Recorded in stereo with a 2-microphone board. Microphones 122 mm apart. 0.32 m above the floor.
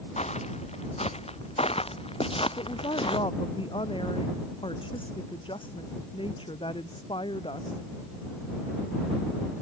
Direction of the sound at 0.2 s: 65° left (ahead or behind).